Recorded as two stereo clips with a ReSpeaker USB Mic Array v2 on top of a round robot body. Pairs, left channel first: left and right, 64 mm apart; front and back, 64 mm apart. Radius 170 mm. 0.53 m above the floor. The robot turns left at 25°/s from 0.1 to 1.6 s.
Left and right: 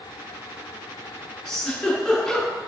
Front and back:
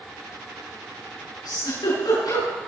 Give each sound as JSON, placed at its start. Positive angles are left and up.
{"t": 1.4, "sound": "a giggle", "azimuth_deg": 5, "distance_m": 9.0}